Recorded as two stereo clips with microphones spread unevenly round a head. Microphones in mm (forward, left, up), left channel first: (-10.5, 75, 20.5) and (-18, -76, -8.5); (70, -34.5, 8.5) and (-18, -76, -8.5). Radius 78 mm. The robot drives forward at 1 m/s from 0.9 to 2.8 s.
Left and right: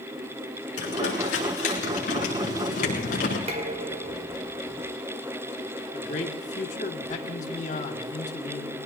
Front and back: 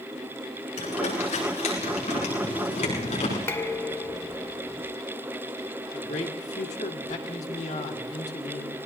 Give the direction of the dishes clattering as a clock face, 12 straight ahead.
1 o'clock.